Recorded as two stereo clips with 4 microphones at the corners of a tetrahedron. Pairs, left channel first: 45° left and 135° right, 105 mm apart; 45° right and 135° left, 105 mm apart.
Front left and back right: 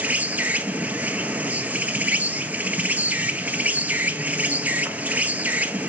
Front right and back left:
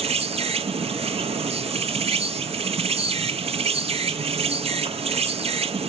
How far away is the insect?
About 0.8 m.